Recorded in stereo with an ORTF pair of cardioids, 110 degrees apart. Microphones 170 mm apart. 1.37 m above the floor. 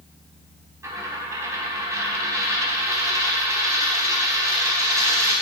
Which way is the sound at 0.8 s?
15° right.